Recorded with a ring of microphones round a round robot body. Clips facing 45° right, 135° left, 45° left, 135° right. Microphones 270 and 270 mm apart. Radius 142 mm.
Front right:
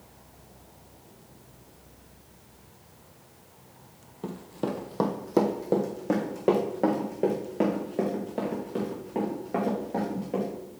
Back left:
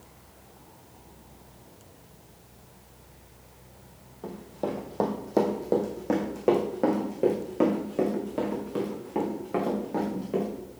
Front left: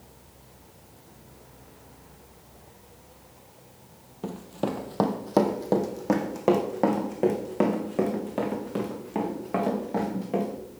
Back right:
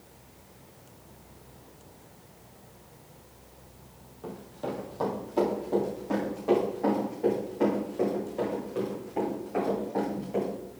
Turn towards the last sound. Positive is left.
turn(degrees=60)